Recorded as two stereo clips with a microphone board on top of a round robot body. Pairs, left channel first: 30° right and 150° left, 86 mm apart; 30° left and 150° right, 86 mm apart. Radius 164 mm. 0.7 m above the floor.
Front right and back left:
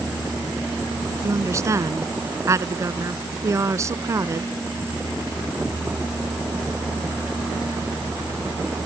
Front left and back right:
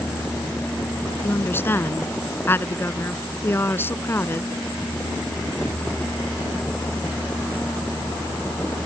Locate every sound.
1.2 s a woman speaking: 95° left